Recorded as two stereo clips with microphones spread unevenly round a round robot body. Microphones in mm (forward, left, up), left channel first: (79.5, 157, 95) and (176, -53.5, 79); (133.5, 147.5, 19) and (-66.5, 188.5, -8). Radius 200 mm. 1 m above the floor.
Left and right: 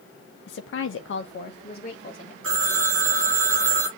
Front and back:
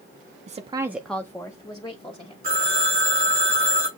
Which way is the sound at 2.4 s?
125° right.